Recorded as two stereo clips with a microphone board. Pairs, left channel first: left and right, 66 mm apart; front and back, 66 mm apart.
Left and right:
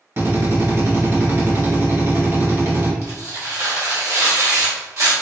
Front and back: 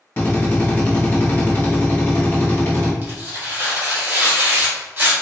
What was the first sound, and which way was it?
A drill, 50° right.